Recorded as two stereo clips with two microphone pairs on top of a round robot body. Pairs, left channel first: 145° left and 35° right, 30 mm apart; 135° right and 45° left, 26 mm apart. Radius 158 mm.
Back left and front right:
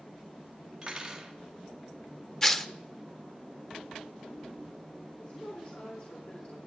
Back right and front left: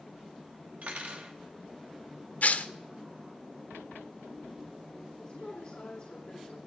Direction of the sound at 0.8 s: 35° left.